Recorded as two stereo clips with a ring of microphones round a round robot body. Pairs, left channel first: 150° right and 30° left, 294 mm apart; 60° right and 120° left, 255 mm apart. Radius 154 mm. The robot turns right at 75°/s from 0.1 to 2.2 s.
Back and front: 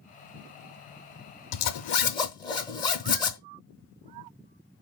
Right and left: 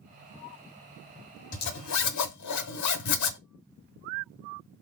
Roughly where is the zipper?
Behind right.